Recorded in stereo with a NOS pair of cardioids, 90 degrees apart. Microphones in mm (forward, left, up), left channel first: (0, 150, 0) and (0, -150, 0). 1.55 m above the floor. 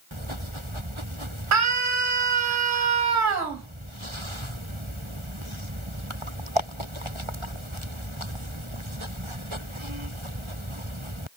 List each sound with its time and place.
1.5 s a scream: 70° right, 0.9 m